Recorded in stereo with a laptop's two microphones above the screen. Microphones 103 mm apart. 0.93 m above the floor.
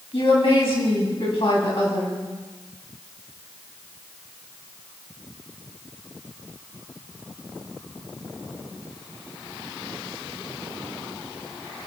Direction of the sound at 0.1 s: 60° left (ahead or behind).